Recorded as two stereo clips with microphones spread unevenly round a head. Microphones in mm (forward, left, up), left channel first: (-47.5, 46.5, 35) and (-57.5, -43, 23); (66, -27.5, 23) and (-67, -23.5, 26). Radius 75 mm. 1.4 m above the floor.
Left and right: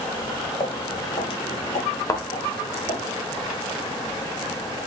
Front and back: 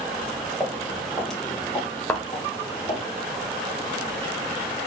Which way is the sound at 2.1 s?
70° left.